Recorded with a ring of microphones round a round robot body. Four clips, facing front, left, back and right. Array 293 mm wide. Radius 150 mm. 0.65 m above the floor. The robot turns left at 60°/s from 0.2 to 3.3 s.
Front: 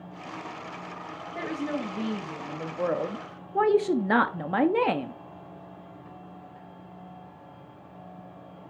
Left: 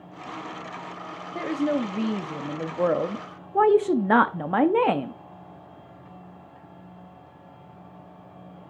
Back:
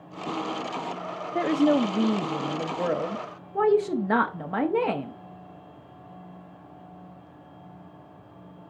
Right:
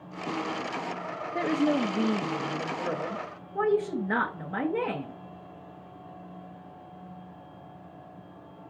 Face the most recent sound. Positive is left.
turn(degrees=80)